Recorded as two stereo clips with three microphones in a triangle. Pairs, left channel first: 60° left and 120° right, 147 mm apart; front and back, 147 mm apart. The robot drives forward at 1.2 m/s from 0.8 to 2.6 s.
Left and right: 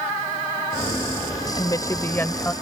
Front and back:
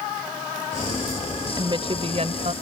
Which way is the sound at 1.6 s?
120° left.